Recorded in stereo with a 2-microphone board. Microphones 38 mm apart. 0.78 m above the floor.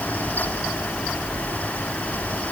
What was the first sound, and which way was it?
Only background noise.